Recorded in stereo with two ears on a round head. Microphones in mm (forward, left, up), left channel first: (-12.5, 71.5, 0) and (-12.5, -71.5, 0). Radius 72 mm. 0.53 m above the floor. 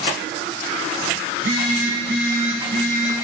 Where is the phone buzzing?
65° right (ahead or behind), 2.5 m.